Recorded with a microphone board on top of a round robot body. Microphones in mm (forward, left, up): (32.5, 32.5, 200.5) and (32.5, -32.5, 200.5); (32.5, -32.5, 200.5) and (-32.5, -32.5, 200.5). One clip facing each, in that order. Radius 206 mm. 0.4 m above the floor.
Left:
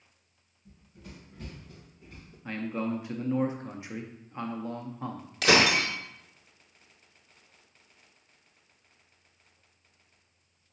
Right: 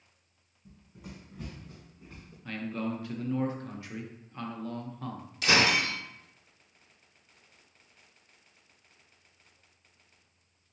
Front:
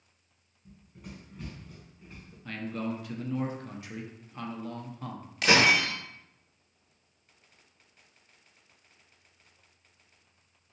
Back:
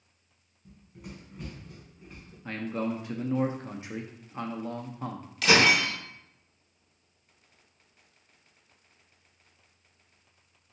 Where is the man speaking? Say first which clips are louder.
Left 2 dB, back 3 dB; 140° left, 0.8 m.